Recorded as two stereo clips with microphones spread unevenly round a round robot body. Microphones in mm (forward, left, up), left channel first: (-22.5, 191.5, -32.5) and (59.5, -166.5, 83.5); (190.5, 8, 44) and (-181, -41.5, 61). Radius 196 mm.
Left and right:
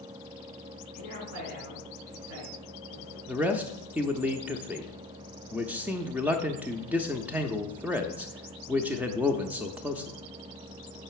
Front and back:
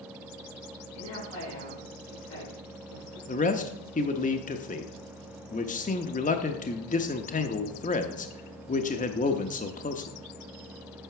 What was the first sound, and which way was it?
A woman speaking, 10° right.